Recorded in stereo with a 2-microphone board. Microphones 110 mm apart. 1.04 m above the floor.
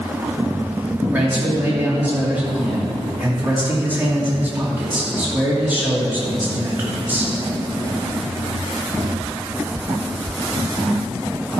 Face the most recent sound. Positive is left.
turn(degrees=-15)  # may be behind; listen again after turning